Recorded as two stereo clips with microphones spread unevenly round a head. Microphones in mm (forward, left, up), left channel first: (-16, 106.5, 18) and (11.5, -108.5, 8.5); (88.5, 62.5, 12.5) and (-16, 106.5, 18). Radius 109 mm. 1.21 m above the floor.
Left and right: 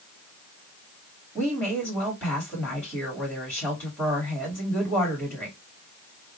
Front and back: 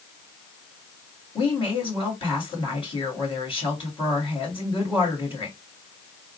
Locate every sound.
1.4 s a woman speaking: 10° left, 2.5 m